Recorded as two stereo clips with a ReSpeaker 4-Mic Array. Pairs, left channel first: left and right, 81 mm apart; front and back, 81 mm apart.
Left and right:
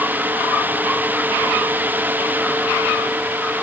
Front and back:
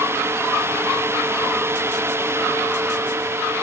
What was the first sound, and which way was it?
Only background noise.